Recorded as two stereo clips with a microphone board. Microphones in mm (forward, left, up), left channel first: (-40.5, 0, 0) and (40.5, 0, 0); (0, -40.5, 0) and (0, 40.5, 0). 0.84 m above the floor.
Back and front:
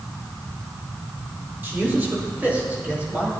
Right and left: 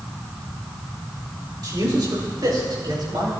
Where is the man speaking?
60° left, 2.5 m; by 3.3 s 70° left, 4.5 m.